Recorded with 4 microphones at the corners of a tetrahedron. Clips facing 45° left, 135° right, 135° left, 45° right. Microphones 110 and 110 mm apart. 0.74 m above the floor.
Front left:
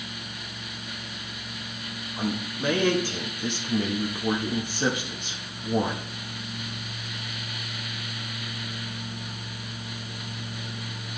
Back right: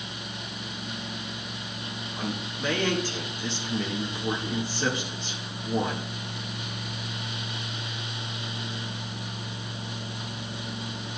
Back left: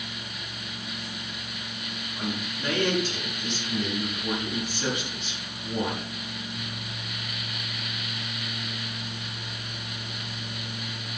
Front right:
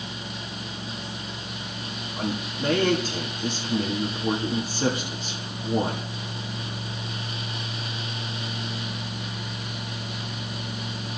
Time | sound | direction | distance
2.2 | a man speaking | 20° right | 1.1 m